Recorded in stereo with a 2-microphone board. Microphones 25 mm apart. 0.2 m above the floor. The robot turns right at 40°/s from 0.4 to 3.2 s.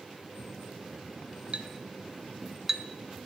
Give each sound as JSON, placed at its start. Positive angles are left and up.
{"t": 1.5, "sound": "a clink", "side_deg": -50, "distance_m": 1.0}